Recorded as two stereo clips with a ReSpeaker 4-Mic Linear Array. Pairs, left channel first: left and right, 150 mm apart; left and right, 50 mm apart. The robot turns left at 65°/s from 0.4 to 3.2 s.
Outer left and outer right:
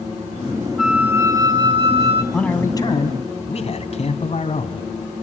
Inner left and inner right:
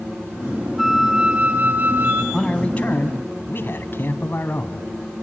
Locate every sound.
0.8 s a flute: 5° right, 1.6 m; by 2.2 s 95° right, 1.6 m
2.3 s a man speaking: 175° left, 2.5 m; by 4.9 s 120° left, 2.5 m